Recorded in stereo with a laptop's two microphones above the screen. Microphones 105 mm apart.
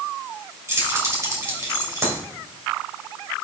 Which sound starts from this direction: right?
Keys jangling, at 0.7 s.